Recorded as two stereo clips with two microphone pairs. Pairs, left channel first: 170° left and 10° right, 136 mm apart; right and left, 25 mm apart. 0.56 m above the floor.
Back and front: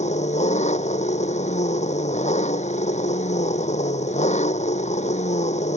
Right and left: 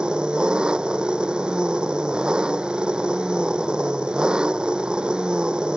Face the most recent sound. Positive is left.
turn(degrees=140)